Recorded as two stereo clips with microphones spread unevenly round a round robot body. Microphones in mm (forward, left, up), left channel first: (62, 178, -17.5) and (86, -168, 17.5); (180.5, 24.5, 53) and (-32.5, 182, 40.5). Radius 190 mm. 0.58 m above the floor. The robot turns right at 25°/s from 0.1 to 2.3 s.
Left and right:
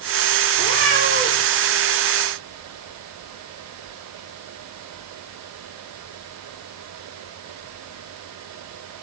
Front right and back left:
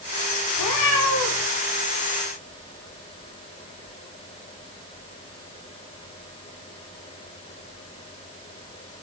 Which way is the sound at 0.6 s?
40° right.